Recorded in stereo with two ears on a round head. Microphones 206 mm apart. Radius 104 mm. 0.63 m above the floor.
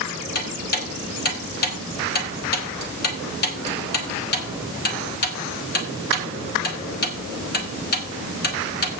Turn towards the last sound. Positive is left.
turn(degrees=45)  # may be behind; listen again after turning